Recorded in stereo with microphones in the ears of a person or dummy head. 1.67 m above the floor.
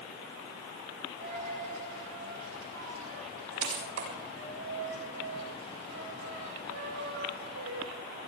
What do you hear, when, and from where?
1.2 s a dropped coin: 75° right (ahead or behind), 7 m